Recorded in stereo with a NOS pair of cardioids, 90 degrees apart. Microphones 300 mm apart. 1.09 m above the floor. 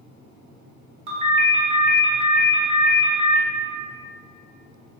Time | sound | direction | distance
1.1 | a ringtone | 20° right | 0.8 m